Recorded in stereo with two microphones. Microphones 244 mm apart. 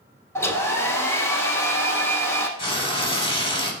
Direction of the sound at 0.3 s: 10° left (ahead or behind).